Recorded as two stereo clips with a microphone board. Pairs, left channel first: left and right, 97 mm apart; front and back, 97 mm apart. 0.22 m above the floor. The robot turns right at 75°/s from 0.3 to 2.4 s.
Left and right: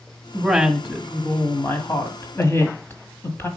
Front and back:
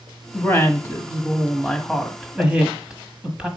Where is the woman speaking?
40° right, 1.3 m; by 3.5 s 115° left, 1.3 m.